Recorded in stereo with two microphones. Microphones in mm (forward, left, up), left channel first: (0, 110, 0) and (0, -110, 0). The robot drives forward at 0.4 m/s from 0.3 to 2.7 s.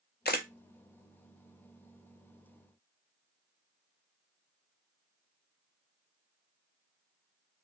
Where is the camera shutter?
45° left (ahead or behind), 0.7 m.